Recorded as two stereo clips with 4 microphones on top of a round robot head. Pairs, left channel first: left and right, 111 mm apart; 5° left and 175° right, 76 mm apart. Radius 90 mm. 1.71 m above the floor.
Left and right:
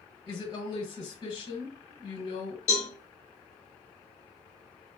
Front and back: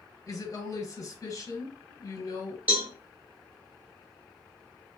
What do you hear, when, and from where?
0.3 s a woman speaking: 45° left, 1.5 m
2.7 s a cowbell: 120° left, 1.1 m